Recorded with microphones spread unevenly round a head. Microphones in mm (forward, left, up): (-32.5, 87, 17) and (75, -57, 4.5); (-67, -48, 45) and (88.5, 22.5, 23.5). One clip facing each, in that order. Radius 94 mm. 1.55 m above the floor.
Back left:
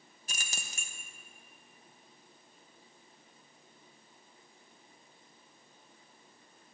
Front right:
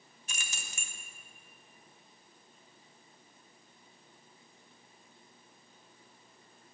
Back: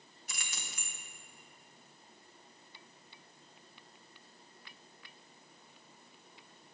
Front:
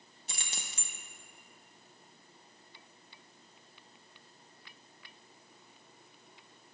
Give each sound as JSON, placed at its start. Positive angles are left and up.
{"t": 0.3, "sound": "keys jangling", "azimuth_deg": 90, "distance_m": 0.9}